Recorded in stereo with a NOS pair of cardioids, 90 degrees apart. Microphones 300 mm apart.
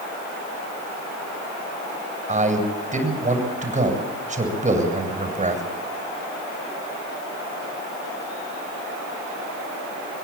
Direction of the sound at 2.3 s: 25° right.